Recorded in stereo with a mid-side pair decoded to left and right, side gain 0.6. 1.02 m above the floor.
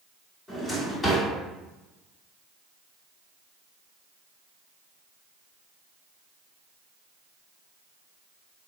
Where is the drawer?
20° left, 1.7 m.